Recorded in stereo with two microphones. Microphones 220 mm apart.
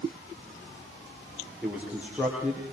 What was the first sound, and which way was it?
A man speaking, 5° right (ahead or behind).